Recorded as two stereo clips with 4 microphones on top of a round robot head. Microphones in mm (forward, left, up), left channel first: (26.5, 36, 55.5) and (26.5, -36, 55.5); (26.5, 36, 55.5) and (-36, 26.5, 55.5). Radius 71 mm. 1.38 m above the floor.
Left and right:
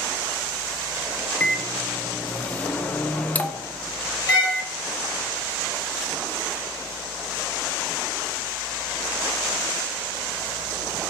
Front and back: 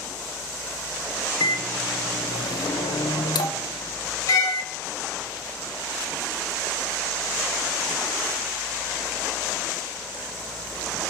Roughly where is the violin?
Ahead left.